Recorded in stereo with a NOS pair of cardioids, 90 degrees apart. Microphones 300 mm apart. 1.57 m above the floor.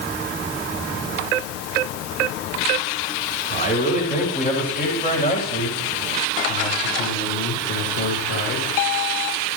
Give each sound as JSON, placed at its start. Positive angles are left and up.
{"t": 3.5, "sound": "a man speaking", "azimuth_deg": 25, "distance_m": 8.5}